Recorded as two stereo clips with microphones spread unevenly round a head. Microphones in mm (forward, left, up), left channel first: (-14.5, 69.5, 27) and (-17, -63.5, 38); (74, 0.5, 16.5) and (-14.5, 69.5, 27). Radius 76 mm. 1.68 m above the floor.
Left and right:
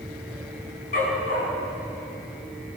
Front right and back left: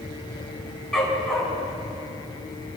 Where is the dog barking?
50° left, 4.5 m.